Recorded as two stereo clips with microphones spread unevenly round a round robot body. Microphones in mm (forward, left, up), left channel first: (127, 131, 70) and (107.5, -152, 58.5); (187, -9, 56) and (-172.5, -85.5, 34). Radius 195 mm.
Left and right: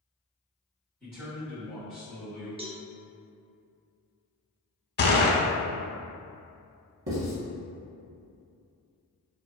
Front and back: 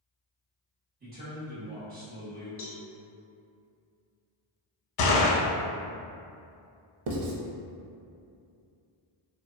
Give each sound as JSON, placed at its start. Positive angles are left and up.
{"t": 1.0, "sound": "a man speaking", "azimuth_deg": 175, "distance_m": 1.1}
{"t": 2.6, "sound": "a cowbell", "azimuth_deg": -30, "distance_m": 0.6}
{"t": 5.0, "sound": "a gunshot", "azimuth_deg": 30, "distance_m": 0.5}
{"t": 7.1, "sound": "writing", "azimuth_deg": -145, "distance_m": 0.5}